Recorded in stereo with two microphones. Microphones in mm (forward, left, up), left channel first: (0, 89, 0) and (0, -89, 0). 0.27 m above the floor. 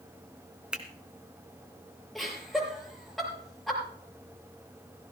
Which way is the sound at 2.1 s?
Centre (ahead or behind).